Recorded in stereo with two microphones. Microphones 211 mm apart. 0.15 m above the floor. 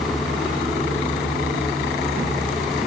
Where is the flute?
No flute in this recording.